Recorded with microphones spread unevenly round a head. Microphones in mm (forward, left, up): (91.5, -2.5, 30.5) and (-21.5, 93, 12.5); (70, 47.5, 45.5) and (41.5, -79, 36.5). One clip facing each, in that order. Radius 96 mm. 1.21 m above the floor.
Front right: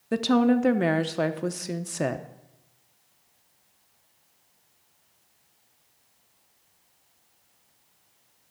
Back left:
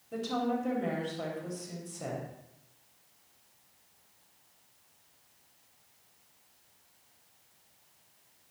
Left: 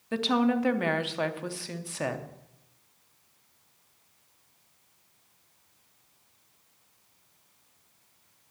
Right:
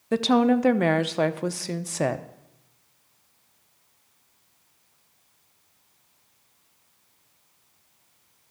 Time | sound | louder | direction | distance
0.1 | a woman speaking | front right 11 dB, right 6 dB | 60° right | 0.7 m